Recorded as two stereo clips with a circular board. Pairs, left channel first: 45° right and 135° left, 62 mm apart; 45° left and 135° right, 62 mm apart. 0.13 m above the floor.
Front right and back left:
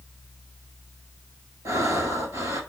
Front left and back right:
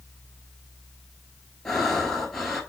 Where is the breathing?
130° left, 0.9 m.